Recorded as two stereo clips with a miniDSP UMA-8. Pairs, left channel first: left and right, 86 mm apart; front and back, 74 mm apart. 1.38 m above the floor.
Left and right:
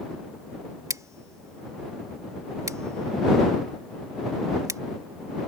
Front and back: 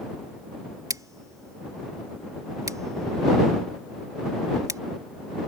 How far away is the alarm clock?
I don't hear an alarm clock.